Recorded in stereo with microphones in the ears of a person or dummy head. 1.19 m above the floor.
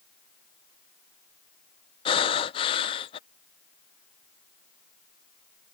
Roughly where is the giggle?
No giggle in this recording.